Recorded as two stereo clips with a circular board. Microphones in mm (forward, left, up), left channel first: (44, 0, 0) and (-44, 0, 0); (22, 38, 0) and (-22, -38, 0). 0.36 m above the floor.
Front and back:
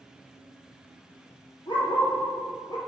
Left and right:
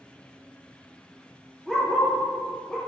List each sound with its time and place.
1.7 s a dog barking: 25° right, 3 m